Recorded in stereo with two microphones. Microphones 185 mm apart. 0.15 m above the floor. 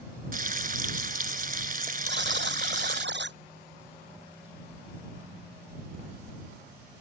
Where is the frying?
50° right (ahead or behind).